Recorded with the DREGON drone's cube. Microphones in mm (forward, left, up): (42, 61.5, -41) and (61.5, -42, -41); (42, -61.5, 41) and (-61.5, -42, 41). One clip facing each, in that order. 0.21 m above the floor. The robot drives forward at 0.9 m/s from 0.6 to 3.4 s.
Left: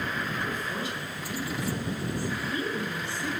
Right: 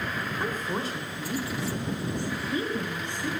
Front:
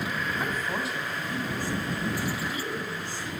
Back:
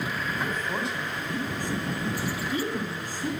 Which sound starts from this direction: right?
A woman speaking, at 0.4 s.